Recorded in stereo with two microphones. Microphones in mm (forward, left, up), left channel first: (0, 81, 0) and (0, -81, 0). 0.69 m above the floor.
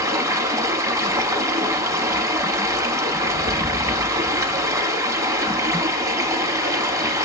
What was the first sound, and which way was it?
Running water, 20° right (ahead or behind).